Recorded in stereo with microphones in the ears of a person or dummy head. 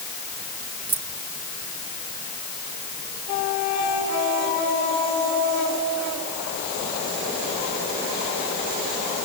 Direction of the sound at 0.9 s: 25° right (ahead or behind).